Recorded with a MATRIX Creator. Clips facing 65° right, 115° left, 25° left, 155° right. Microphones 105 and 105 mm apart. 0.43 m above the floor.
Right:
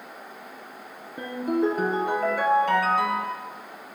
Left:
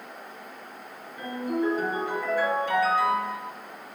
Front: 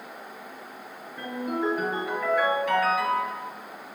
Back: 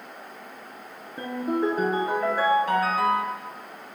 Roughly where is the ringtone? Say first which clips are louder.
Right 3 dB, back 3 dB; right.